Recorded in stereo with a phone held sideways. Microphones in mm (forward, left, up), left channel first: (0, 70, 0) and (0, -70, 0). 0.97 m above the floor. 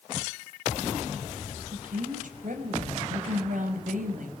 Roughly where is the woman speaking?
Right.